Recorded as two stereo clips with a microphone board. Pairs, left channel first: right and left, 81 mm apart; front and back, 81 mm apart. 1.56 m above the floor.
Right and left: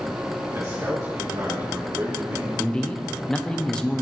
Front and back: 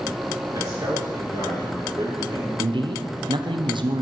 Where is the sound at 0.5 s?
140° left, 3.5 m.